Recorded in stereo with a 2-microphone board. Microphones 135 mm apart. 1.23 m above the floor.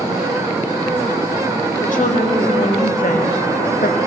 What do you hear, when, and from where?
1.8 s a woman speaking: 70° left (ahead or behind), 3 m; by 4.0 s 75° left (ahead or behind), 1.4 m